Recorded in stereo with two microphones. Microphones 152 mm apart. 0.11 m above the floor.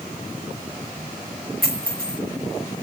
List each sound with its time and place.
1.6 s a dropped coin: 70° right (ahead or behind), 2.5 m